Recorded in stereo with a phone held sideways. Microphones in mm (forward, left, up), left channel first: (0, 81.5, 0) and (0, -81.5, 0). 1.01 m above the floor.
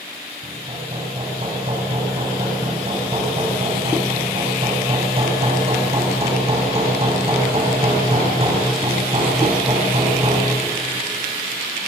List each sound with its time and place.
0.4 s hammering: 35° right (ahead or behind), 6.5 m